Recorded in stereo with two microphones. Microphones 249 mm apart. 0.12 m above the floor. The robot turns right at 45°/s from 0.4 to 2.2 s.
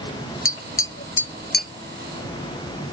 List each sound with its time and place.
0.5 s tapping: 55° left (ahead or behind); by 1.7 s 35° left (ahead or behind)